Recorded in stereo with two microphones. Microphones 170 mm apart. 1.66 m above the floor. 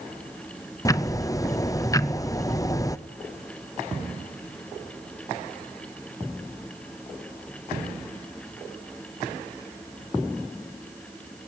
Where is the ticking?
20° left (ahead or behind), 0.6 m.